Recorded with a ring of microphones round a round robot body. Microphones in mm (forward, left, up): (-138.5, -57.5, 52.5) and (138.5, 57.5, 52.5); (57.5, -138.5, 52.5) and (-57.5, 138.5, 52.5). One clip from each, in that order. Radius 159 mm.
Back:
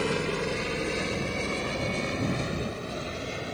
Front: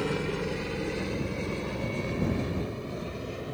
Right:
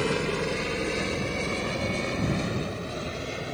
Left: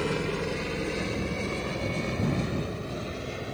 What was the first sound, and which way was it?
A helicopter, 125° right.